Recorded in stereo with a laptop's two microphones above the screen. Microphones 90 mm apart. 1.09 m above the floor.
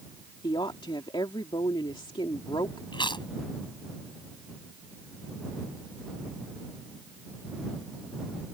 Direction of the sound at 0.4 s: 70° left (ahead or behind).